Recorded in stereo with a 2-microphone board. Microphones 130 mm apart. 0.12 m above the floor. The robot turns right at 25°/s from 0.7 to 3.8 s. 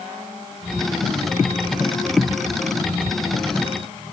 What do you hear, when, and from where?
Only background noise.